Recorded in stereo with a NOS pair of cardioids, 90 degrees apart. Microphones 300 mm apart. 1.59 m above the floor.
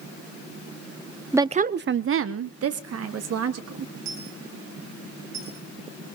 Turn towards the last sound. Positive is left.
turn(degrees=-65)